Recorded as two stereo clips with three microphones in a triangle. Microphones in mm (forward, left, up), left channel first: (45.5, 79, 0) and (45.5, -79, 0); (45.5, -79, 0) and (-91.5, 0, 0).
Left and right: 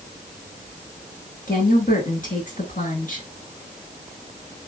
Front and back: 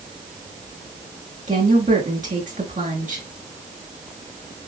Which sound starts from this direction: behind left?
A woman speaking, at 1.5 s.